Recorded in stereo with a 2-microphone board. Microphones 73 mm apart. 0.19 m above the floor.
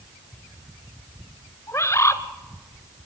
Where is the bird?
40° left (ahead or behind), 1.1 m.